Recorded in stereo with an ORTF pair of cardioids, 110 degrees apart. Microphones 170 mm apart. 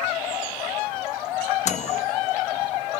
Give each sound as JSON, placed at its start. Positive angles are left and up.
{"t": 1.6, "sound": "a microwave", "azimuth_deg": 45, "distance_m": 1.3}